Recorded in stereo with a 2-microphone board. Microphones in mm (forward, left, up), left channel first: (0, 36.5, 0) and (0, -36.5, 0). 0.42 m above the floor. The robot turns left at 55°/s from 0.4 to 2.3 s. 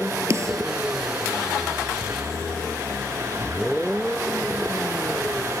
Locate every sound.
0.3 s a snare drum: 40° right (ahead or behind); by 0.7 s 55° right (ahead or behind)